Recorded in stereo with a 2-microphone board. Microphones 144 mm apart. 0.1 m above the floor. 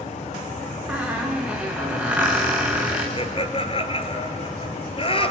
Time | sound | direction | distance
0.9 | a squeak | 10° right (ahead or behind) | 4 m
3.2 | laughter | 40° left (ahead or behind) | 1.5 m